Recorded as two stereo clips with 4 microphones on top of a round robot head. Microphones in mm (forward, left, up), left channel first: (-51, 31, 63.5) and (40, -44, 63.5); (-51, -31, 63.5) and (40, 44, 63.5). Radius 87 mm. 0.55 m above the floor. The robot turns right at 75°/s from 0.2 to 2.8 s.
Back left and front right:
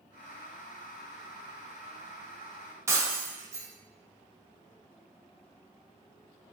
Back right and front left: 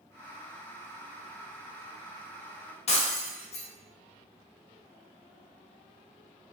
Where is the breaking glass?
105° right, 0.8 m.